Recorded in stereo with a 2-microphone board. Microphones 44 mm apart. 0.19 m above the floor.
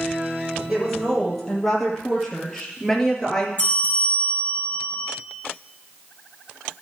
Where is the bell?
30° left (ahead or behind), 3 m.